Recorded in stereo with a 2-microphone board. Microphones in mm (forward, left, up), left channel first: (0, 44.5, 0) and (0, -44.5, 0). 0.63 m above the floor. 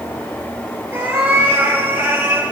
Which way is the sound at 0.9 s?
25° right (ahead or behind).